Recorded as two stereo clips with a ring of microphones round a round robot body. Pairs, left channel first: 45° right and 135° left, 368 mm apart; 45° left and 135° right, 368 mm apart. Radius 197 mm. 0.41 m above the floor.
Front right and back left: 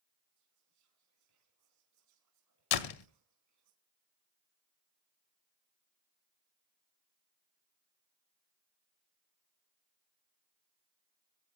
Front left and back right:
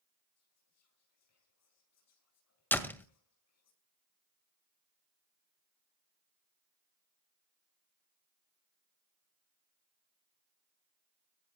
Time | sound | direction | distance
0.4 | whispering | 95° left | 5 m
2.7 | a door slam | 40° right | 1.7 m